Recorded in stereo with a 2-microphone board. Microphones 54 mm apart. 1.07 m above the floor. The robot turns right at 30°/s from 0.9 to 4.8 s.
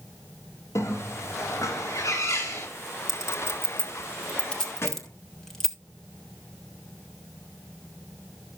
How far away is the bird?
About 3.5 m.